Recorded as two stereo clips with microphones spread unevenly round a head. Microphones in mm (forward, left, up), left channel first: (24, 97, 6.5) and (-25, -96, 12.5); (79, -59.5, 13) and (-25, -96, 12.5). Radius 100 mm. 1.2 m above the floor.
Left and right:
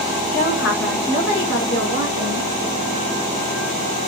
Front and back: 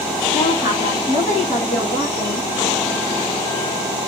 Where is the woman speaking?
35° left, 1.1 m; by 2.5 s 50° left, 2.5 m.